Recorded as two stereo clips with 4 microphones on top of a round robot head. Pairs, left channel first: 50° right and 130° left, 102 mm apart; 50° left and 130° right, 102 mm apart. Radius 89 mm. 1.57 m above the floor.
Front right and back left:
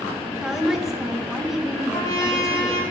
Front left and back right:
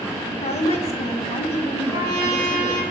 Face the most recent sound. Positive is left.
turn(degrees=-100)